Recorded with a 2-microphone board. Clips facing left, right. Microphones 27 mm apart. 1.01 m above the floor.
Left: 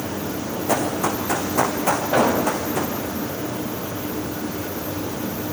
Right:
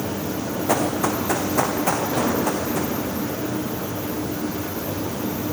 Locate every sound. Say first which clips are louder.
0.7 s running footsteps: even; 10° right (ahead or behind), 4.5 m; by 2.9 s 15° left (ahead or behind), 5 m
2.1 s an explosion: left 3 dB; 80° left, 3 m